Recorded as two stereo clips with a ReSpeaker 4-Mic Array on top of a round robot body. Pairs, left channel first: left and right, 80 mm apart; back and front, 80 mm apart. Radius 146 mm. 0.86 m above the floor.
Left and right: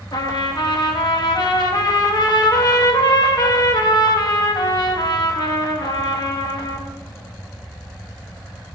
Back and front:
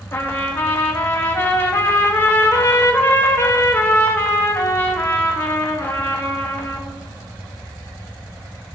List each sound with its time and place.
0.1 s a trumpet: 120° left, 1.7 m